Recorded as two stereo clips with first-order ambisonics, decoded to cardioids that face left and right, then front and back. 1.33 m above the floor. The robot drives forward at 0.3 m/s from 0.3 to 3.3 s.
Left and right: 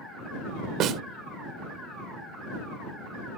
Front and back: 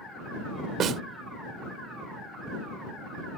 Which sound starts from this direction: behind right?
A snare drum, at 0.8 s.